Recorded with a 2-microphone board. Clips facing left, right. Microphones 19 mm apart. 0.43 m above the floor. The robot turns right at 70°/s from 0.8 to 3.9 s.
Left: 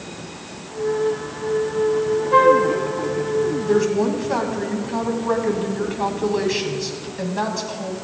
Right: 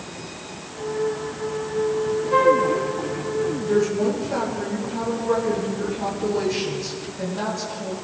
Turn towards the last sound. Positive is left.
turn(degrees=40)  # may be behind; listen again after turning